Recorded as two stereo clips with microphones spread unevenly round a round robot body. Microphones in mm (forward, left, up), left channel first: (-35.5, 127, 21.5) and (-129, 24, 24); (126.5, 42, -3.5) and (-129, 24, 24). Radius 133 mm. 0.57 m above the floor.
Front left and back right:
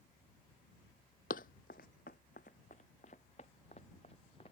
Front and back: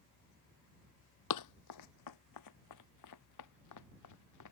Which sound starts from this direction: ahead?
Running footsteps, at 1.3 s.